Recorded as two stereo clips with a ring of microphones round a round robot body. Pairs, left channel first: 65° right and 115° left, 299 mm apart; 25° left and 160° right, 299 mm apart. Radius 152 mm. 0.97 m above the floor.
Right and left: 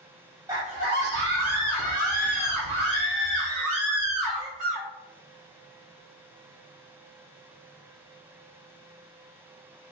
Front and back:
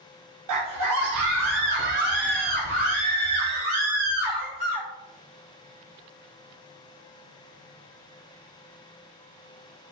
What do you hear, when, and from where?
0.5 s a scream: 170° right, 0.6 m; by 4.9 s 135° left, 3 m